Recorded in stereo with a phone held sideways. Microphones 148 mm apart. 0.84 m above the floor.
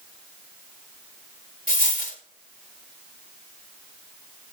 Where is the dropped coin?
65° left (ahead or behind), 4 m.